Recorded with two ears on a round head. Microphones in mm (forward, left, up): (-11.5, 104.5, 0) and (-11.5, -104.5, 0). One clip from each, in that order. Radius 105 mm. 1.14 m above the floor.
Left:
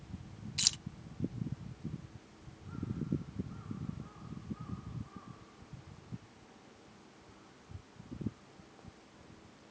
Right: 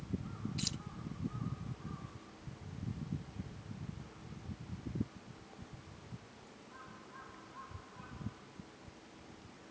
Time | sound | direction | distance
0.6 | keys jangling | 40° left (ahead or behind) | ?